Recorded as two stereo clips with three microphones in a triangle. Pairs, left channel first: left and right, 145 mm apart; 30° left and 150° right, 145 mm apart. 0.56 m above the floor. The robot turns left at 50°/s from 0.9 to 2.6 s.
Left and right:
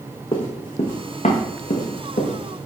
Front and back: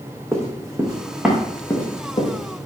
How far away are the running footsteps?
About 1.8 m.